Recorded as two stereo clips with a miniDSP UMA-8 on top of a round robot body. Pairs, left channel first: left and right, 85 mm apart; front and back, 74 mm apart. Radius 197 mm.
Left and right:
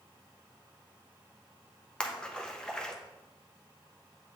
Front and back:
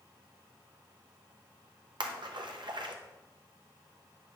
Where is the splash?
170° left, 0.9 m.